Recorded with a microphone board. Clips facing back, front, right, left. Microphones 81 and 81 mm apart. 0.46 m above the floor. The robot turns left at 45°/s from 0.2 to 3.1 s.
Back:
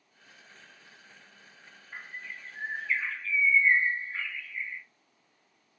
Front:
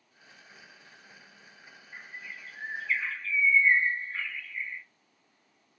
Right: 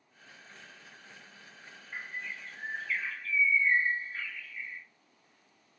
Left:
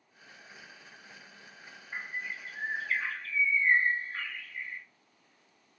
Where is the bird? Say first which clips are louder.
Back 2 dB, left 2 dB; 150° left, 0.6 m; by 4.8 s 95° left, 0.6 m.